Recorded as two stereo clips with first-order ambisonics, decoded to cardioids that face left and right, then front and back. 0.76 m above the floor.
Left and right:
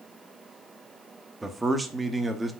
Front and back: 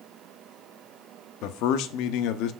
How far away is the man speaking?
About 0.9 m.